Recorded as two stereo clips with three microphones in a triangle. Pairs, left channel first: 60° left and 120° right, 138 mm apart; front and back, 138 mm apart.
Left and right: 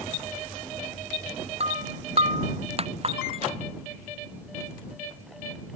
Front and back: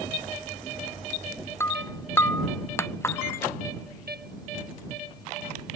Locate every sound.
1.6 s breaking glass: 75° right